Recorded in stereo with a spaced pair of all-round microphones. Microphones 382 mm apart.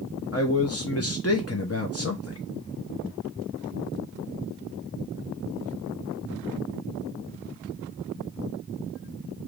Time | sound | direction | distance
0.3 | a man speaking | 40° left (ahead or behind) | 0.7 m